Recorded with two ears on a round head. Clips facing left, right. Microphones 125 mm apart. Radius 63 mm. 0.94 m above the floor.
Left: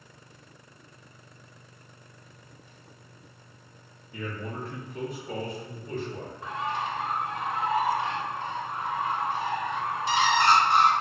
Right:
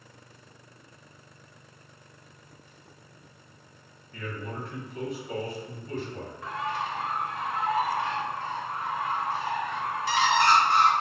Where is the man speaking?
10° left (ahead or behind), 0.7 m; by 6.3 s 55° left (ahead or behind), 1.5 m.